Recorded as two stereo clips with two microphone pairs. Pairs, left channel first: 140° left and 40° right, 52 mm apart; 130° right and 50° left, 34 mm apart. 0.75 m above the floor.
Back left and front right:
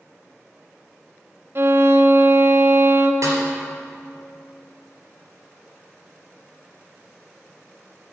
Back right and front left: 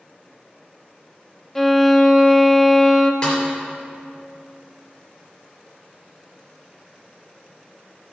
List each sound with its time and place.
1.6 s a violin: 55° right, 0.7 m
3.2 s a snare drum: 70° right, 3.5 m